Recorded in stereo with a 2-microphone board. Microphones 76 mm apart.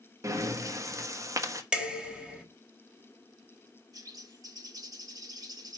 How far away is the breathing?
About 1.0 m.